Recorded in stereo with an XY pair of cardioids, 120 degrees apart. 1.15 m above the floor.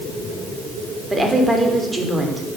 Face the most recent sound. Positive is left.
turn(degrees=-15)